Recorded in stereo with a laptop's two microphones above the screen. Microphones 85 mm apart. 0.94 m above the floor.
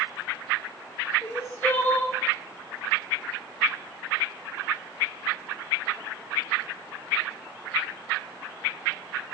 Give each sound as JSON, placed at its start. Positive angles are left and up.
{"t": 1.2, "sound": "crying", "side_deg": 20, "distance_m": 2.0}